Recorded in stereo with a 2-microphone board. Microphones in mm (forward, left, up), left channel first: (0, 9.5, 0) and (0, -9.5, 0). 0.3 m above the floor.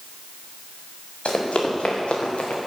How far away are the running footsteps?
About 4.5 m.